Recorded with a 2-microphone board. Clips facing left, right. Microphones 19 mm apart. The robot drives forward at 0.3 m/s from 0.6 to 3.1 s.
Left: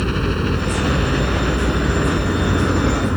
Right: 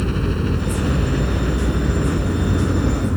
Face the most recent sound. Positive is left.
turn(degrees=30)  # may be behind; listen again after turning